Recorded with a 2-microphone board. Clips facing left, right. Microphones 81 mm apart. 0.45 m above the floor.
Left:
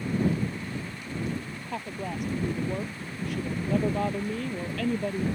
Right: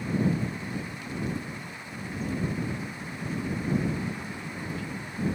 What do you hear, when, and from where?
1.7 s a woman speaking: 70° left (ahead or behind)